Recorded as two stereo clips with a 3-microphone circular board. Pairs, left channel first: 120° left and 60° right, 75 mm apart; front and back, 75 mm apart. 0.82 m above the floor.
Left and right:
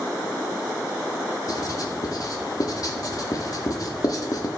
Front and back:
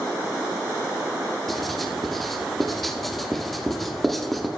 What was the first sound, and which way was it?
Writing, 85° left.